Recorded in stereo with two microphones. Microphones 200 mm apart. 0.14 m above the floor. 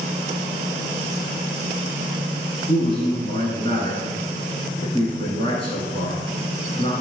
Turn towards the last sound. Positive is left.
turn(degrees=30)  # may be behind; listen again after turning